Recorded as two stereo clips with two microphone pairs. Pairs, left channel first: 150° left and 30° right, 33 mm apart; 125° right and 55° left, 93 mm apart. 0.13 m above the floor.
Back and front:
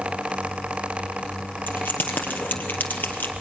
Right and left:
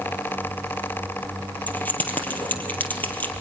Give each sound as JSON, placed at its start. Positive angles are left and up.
{"t": 1.7, "sound": "keys jangling", "azimuth_deg": 165, "distance_m": 2.5}